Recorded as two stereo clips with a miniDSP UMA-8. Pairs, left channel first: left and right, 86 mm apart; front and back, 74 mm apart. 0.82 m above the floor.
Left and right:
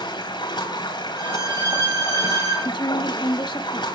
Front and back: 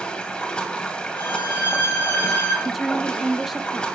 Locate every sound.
0.0 s running water: 75° left, 2.5 m
1.2 s a violin: 45° right, 9 m
2.6 s a woman speaking: 90° left, 0.8 m